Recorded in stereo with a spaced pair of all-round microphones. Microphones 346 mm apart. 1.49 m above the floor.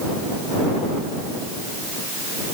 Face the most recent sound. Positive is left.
No sound to turn to.